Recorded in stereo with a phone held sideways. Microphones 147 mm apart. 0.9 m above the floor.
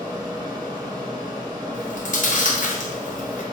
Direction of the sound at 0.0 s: 30° right (ahead or behind).